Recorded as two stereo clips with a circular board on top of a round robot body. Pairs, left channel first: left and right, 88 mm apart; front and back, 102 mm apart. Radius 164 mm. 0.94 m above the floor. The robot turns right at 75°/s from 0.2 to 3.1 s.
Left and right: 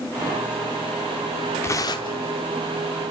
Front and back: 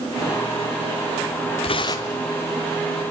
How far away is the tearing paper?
About 0.9 m.